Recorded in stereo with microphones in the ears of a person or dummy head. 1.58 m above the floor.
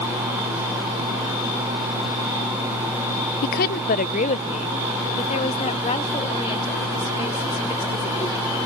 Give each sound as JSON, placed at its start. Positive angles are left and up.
{"t": 3.4, "sound": "a woman speaking", "side_deg": 55}